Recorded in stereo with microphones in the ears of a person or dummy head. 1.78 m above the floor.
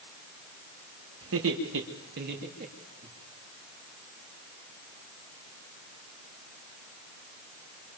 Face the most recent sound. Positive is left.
turn(degrees=-40)  # may be behind; listen again after turning